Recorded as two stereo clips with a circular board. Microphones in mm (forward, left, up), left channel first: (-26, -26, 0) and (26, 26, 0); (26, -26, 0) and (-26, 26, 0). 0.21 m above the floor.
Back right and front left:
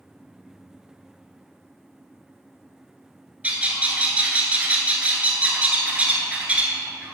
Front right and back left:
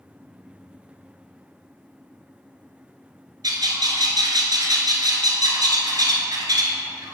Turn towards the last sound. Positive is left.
turn(degrees=115)